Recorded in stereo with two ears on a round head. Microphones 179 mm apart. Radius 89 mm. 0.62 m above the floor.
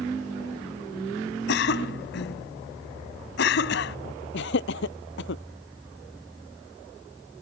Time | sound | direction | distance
1.5 | a cough | 60° left (ahead or behind) | ?
4.3 | laughter | 65° left (ahead or behind) | ?